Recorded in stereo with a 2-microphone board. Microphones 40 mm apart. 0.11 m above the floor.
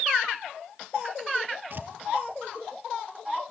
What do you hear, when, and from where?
1.7 s tearing paper: 50° right (ahead or behind), 1.9 m